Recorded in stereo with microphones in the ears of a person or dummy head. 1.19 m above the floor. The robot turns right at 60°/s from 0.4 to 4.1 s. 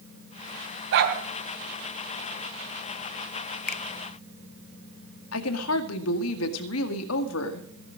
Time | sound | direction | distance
0.9 | a dog barking | 70° right (ahead or behind) | 4 m
3.7 | a finger snap | 55° left (ahead or behind) | 0.5 m
5.3 | a woman speaking | 80° left | 1.9 m